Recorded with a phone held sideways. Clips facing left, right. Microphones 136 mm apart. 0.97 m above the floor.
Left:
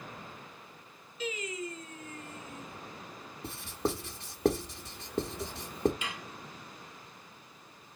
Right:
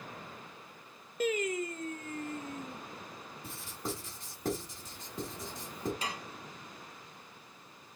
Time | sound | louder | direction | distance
1.2 | singing | right 6 dB | 55° right (ahead or behind) | 0.7 m
3.4 | writing | left 7 dB | 70° left (ahead or behind) | 1.2 m
6.0 | dishes clattering | right 2 dB | 35° right (ahead or behind) | 0.6 m